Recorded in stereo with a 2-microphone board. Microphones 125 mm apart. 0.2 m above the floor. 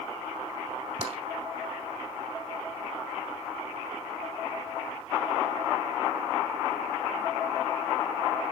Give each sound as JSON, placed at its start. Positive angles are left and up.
{"t": 1.0, "sound": "tapping", "side_deg": -55, "distance_m": 0.9}